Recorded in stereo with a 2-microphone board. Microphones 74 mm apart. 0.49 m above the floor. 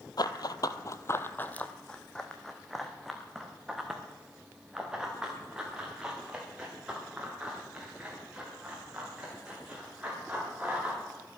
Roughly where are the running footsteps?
Left.